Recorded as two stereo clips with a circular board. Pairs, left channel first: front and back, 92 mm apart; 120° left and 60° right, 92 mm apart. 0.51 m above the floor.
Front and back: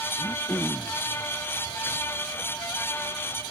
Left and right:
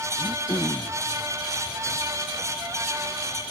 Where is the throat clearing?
60° left.